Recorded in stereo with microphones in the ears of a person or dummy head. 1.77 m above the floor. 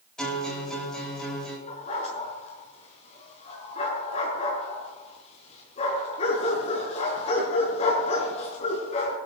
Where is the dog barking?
40° left (ahead or behind), 5.5 m.